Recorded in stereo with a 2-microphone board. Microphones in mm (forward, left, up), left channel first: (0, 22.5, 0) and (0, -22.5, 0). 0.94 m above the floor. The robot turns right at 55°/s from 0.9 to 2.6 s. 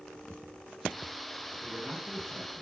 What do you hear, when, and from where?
1.6 s a man speaking: 105° right, 8 m; by 2.6 s 50° right, 8 m